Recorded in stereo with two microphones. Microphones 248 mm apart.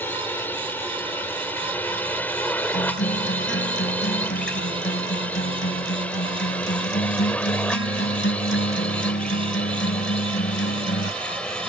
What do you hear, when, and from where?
0.0 s a drone: 10° left (ahead or behind); by 11.7 s 5° left (ahead or behind)
2.7 s a guitar: 50° left (ahead or behind)